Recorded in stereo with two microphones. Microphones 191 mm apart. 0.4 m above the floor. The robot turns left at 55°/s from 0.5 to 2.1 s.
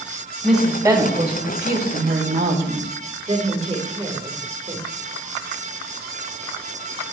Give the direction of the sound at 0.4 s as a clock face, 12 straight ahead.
12 o'clock.